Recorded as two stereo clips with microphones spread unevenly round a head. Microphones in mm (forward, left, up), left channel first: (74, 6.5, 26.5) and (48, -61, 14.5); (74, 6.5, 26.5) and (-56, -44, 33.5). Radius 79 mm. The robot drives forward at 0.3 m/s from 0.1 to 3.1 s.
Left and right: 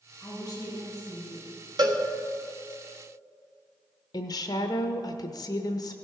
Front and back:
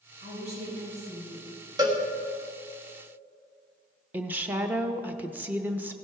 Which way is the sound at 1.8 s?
95° right.